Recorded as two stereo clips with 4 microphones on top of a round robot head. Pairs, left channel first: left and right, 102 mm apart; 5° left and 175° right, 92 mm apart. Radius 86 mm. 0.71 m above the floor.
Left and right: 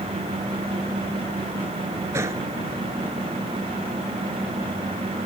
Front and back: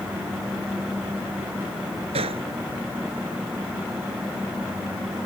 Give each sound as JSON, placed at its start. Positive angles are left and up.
{"t": 2.1, "sound": "a gunshot", "azimuth_deg": -160}